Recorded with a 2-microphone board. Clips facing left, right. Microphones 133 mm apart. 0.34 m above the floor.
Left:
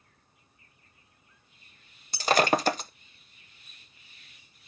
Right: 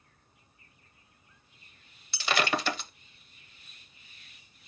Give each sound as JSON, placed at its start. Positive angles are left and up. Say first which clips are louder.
{"t": 2.1, "sound": "breaking glass", "louder": "left 6 dB", "side_deg": 45, "distance_m": 0.5}